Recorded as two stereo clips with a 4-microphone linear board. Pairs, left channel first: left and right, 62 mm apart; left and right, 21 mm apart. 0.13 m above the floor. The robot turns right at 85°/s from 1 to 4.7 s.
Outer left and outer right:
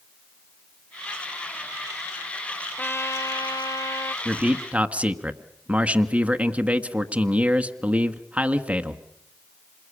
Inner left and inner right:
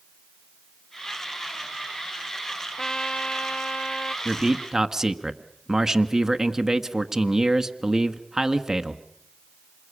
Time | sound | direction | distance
2.8 | a trumpet | 30° left | 1.1 m
4.2 | a man speaking | 5° right (ahead or behind) | 1.3 m